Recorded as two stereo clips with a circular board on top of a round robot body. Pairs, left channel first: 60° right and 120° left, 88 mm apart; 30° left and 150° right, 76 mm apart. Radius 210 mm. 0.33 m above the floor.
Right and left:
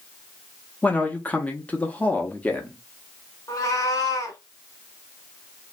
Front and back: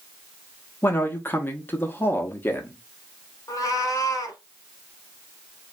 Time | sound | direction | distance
0.8 | a man speaking | straight ahead | 0.9 m
3.5 | a cat meowing | 10° right | 0.9 m